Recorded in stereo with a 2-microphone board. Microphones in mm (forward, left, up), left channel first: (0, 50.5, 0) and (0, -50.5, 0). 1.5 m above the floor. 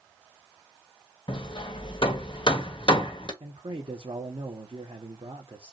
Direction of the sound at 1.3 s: 55° left (ahead or behind).